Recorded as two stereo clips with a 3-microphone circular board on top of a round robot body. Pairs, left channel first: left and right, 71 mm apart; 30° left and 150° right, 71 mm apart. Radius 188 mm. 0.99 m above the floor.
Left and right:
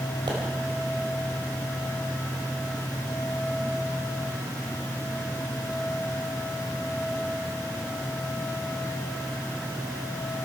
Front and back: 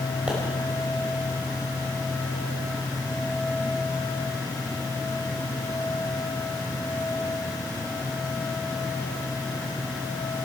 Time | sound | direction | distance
0.3 | a pop | 75° right | 3.5 m